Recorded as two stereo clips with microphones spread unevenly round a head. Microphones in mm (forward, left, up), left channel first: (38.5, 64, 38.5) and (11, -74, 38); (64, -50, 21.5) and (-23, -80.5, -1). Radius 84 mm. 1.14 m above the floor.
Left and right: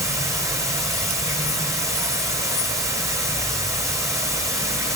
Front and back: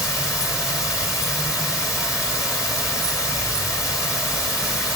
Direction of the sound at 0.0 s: 35° right.